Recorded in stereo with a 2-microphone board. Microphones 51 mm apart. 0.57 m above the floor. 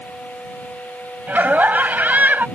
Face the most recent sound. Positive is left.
turn(degrees=-35)  # may be behind; listen again after turning